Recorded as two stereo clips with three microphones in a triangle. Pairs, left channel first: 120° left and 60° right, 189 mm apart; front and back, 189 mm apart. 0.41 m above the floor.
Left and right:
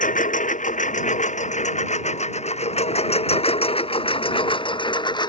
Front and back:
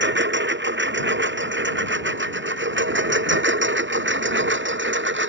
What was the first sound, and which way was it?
A lawn mower, 165° left.